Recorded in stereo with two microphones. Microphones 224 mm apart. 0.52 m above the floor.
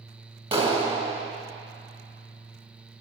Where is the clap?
25° right (ahead or behind), 1.5 m.